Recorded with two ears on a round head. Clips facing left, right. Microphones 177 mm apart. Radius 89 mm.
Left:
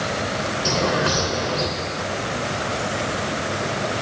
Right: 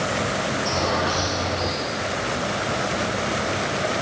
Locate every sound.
0.7 s a bird: 90° left, 3.5 m